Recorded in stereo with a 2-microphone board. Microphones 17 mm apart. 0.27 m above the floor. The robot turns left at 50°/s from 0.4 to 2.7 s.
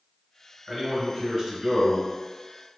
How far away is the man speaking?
About 1.5 m.